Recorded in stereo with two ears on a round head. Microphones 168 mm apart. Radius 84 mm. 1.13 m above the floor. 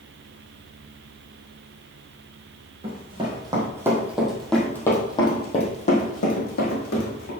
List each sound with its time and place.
2.8 s running footsteps: 30° right (ahead or behind), 4 m; by 7.3 s 60° left (ahead or behind), 4.5 m